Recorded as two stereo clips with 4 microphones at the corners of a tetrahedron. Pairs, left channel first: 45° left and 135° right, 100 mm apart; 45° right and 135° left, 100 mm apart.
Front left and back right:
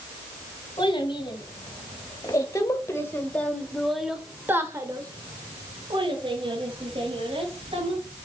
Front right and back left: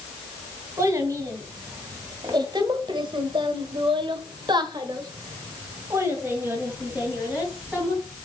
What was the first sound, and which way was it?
A child speaking, 80° left.